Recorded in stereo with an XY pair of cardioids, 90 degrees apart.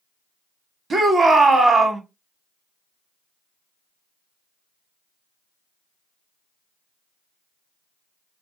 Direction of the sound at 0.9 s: 50° right.